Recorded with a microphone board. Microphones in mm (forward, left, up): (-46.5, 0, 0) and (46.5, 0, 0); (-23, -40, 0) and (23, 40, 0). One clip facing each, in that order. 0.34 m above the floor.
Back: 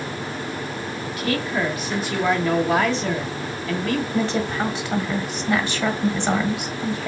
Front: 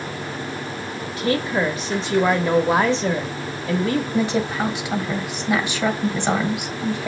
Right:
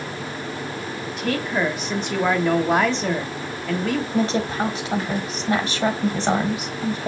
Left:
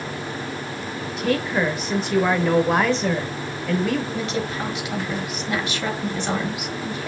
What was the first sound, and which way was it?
A woman speaking, 30° right.